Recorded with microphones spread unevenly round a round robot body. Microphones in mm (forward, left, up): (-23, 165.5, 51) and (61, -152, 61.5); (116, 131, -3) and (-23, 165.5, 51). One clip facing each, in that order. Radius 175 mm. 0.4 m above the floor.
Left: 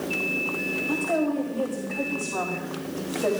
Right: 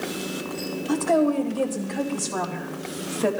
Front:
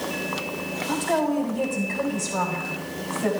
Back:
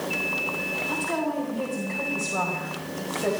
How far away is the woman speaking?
About 2.0 m.